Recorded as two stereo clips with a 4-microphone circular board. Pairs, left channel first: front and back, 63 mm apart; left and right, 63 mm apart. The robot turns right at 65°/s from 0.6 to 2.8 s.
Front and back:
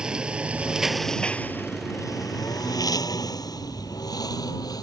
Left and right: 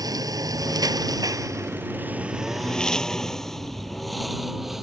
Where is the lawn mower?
100° right; by 4.8 s 5° right.